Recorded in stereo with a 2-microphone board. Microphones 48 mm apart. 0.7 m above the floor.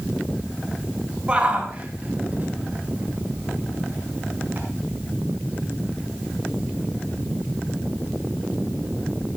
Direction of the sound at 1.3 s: 25° right (ahead or behind).